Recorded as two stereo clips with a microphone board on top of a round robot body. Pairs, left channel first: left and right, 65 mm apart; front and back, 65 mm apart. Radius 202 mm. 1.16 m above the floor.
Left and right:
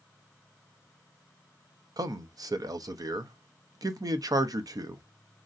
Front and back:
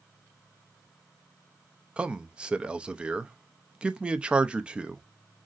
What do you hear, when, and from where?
2.0 s a man speaking: 105° right, 0.5 m